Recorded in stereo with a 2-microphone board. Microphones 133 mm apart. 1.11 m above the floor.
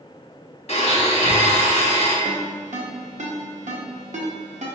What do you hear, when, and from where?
0.7 s a blender: 50° left (ahead or behind), 1.0 m
2.2 s a ringtone: 65° right (ahead or behind), 0.8 m